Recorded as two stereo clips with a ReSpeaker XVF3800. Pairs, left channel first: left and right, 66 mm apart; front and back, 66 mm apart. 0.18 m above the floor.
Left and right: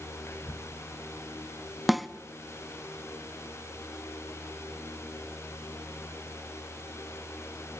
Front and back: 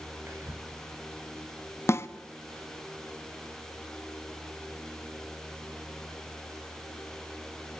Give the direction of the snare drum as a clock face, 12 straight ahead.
12 o'clock.